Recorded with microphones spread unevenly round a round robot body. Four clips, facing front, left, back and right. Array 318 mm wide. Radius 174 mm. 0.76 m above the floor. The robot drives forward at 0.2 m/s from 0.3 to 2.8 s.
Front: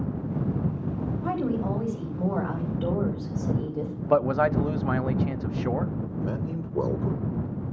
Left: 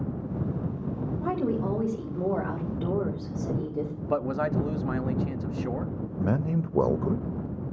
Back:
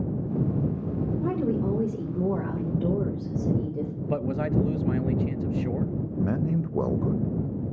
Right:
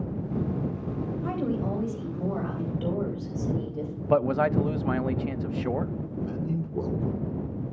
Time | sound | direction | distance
1.2 | a woman speaking | 155° left | 3.5 m
4.1 | a man speaking | 40° right | 0.5 m
6.2 | a man speaking | 90° left | 0.6 m